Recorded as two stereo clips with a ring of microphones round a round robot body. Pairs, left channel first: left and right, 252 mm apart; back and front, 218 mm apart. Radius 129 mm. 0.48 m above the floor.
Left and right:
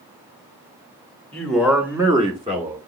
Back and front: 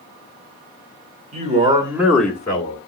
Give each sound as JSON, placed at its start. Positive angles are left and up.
{"t": 1.3, "sound": "a man speaking", "azimuth_deg": 10, "distance_m": 1.0}